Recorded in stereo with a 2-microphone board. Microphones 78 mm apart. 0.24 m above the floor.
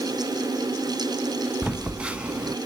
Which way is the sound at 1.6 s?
15° right (ahead or behind).